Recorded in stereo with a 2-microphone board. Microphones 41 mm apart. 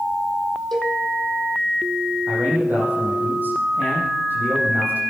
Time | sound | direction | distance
0.7 | a cowbell | 10° left (ahead or behind) | 3.5 m
2.3 | a man speaking | 50° right (ahead or behind) | 6 m